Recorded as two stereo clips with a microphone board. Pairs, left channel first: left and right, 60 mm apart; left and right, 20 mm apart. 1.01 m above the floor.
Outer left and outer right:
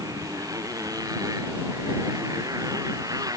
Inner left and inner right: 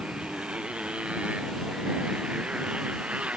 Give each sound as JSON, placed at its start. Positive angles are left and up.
{"t": 0.0, "sound": "a motorcycle", "side_deg": -85}